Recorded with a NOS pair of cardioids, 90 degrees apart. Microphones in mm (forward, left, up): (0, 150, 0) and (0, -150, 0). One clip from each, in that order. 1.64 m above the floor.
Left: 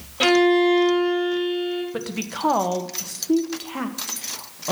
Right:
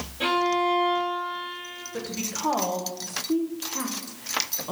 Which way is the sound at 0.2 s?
70° left.